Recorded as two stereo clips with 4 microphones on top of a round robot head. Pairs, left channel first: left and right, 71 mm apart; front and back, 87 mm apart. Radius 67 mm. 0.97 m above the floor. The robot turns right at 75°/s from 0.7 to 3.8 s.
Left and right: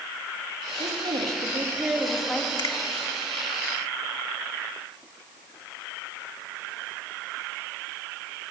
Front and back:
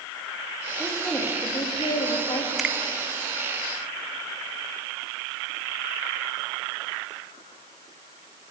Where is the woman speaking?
100° right, 2 m; by 2.5 s 25° left, 2 m.